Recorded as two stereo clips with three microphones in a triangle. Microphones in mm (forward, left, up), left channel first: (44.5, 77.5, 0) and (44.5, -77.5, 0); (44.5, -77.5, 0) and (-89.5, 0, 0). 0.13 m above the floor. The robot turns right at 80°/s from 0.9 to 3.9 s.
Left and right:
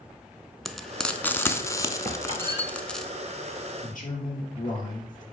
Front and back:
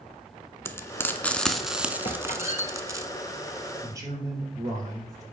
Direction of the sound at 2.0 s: 65° right.